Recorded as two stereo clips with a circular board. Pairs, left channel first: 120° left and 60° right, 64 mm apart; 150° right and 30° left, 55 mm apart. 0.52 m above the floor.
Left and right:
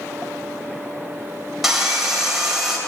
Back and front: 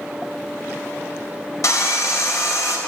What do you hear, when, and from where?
1.6 s sawing: 145° right, 3 m